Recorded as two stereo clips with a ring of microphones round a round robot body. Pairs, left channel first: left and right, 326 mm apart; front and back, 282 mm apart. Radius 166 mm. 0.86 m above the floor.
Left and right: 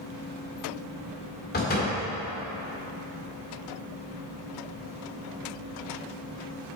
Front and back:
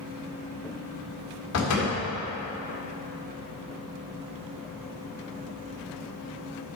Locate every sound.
1.5 s a door slam: 30° left, 1.8 m